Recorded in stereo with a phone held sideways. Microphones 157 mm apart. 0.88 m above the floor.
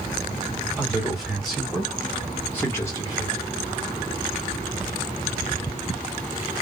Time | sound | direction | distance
0.8 | a man speaking | 5° right (ahead or behind) | 2.0 m